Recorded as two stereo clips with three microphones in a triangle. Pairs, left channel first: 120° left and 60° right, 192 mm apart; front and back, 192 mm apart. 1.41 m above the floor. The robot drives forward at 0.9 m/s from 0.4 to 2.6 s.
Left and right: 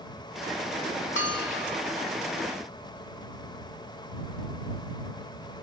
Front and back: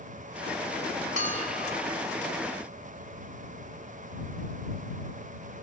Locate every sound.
1.2 s a bell: 135° left; by 1.8 s 140° left